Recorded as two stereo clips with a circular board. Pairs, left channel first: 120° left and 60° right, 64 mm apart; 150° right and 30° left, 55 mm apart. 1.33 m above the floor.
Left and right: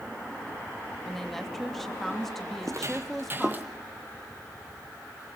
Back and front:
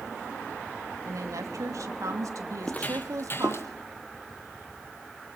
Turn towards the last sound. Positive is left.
turn(degrees=-120)